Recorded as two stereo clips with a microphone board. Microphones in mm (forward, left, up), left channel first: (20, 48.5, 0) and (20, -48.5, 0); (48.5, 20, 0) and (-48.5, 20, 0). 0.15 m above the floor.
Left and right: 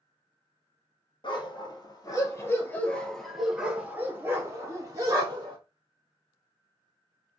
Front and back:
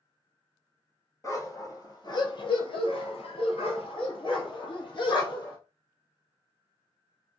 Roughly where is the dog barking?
Ahead left.